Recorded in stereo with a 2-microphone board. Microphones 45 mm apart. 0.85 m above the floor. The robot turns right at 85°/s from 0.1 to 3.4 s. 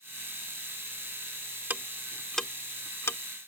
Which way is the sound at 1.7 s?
45° right (ahead or behind).